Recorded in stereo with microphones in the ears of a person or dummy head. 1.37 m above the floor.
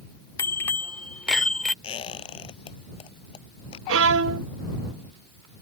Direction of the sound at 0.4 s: 15° left (ahead or behind).